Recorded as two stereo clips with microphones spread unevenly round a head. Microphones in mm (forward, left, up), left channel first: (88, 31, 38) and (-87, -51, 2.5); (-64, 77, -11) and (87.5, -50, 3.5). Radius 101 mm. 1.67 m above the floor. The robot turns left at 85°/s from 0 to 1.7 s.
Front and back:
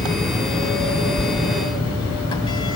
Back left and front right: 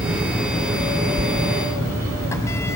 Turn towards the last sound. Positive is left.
turn(degrees=65)